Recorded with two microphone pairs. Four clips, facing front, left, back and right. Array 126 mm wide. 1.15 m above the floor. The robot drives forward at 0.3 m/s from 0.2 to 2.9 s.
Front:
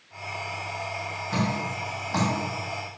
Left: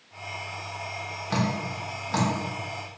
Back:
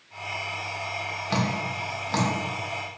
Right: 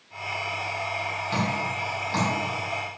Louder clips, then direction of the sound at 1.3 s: Left 1 dB, even; 160° left.